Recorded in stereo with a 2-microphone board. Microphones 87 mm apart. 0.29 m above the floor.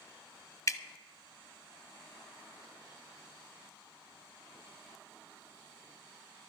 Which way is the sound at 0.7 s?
35° left (ahead or behind).